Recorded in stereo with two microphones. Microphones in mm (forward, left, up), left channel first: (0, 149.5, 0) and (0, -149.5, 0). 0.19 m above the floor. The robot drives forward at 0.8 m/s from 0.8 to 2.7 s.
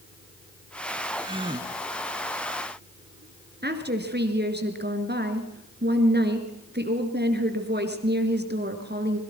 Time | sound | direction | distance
1.2 | a gasp | 15° right (ahead or behind) | 1.6 m
3.6 | a woman speaking | 35° right (ahead or behind) | 2.5 m